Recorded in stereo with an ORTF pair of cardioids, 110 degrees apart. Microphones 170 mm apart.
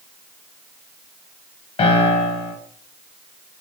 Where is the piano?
40° left, 1.6 m.